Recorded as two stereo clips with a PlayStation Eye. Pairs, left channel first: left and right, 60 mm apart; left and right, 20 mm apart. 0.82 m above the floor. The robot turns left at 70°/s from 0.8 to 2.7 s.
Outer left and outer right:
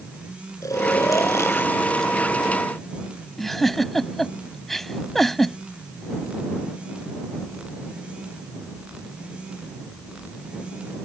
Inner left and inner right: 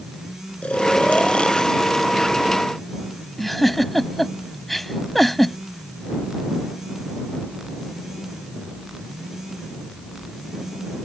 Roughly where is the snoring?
Left.